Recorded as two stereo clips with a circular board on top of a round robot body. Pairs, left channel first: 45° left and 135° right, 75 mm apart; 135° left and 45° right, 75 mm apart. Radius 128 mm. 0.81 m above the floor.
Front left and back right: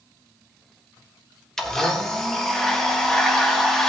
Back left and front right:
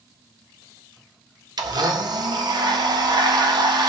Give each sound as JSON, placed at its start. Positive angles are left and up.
{"t": 1.6, "sound": "a blender", "azimuth_deg": -35, "distance_m": 1.5}